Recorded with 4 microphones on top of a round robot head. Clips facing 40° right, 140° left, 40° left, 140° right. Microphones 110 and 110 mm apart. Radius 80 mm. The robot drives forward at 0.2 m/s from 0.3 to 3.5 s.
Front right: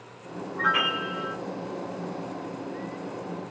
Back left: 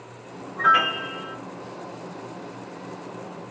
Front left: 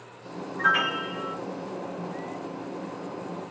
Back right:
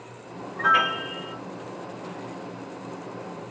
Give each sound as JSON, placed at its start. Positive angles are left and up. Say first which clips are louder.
{"t": 0.6, "sound": "a piano", "louder": "back left 6 dB, back right 3 dB", "azimuth_deg": -170, "distance_m": 2.0}